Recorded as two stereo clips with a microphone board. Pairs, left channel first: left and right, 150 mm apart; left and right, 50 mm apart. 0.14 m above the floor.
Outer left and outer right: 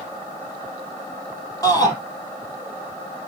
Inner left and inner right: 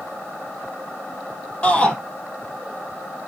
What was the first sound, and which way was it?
A shout, 25° left (ahead or behind).